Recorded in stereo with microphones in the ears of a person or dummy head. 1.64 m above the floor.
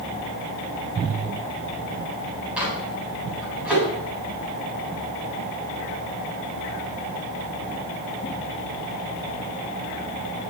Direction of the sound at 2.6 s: 10° right (ahead or behind).